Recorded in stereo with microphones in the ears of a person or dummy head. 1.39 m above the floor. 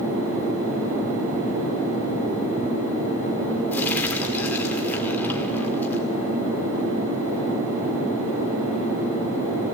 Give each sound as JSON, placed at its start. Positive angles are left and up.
{"t": 3.7, "sound": "crumpling", "side_deg": 10, "distance_m": 2.5}